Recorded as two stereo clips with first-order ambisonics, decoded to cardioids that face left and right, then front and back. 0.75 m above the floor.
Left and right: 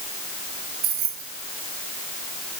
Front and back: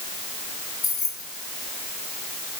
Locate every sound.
0.8 s keys jangling: 60° right, 2.5 m